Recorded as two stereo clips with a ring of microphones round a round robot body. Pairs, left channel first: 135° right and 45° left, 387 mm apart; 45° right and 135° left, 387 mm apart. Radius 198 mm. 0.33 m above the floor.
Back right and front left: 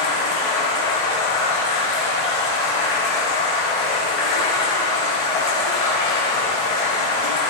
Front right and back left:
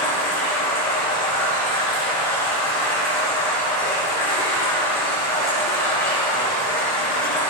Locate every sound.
0.0 s running water: 130° right, 7.5 m